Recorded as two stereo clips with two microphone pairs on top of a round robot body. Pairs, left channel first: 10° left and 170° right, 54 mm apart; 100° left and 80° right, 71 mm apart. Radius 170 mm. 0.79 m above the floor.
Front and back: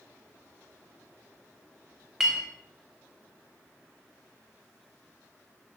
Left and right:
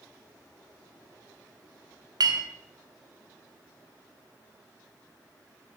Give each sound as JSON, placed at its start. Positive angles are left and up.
{"t": 2.2, "sound": "a clink", "azimuth_deg": -85, "distance_m": 1.2}